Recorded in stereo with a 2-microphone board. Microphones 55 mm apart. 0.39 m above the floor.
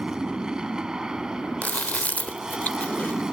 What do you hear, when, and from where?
0.0 s an aircraft: 15° right (ahead or behind)
1.6 s chewing: 30° left (ahead or behind)